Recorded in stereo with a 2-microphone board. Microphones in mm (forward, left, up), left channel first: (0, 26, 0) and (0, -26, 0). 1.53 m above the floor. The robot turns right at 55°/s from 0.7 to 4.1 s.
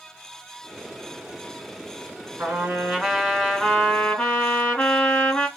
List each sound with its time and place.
2.4 s a trumpet: 60° right, 1.5 m; by 5.5 s 35° left, 1.5 m